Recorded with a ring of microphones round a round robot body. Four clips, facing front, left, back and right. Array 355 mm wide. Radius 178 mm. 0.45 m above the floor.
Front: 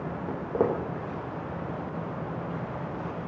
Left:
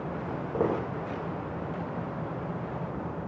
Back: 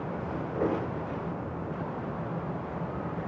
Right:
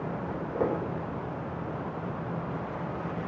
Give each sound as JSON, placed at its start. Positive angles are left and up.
{"t": 0.3, "sound": "footsteps", "azimuth_deg": 20, "distance_m": 1.1}